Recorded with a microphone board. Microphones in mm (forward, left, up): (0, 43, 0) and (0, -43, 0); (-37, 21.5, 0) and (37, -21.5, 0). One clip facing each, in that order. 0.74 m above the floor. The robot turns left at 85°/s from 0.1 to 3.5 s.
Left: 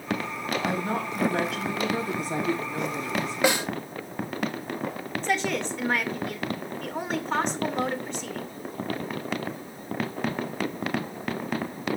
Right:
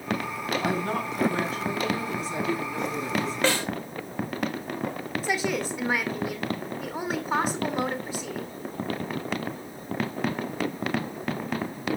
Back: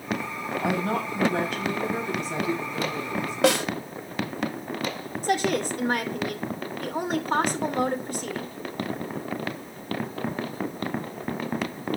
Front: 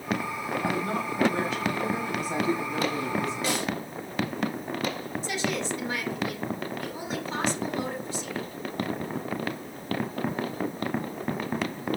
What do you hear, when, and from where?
0.6 s a woman speaking: 165° right, 5.5 m; by 3.3 s 40° right, 5.5 m
3.4 s a snare drum: 170° left, 1.6 m; by 3.7 s 165° left, 1.6 m
5.2 s a woman speaking: 175° right, 2.5 m